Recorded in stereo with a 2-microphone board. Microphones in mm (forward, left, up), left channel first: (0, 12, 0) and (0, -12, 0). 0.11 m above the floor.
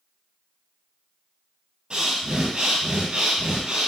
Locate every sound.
1.9 s breathing: 40° right (ahead or behind), 1.1 m